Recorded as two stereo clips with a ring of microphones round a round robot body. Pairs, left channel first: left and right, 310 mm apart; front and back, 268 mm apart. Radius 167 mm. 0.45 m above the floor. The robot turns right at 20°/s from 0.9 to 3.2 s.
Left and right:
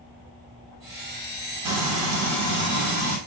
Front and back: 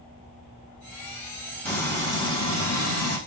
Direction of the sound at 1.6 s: 90° right.